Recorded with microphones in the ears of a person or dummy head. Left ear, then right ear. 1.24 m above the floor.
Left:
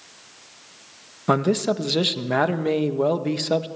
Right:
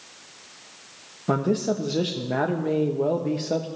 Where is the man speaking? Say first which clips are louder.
Left 3 dB; 40° left (ahead or behind), 0.8 m.